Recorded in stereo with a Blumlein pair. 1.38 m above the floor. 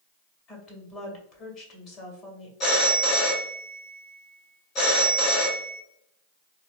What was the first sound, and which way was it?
A woman speaking, 30° left.